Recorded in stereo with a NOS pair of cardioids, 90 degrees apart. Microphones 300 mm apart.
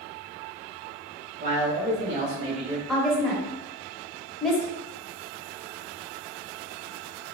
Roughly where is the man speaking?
Ahead right.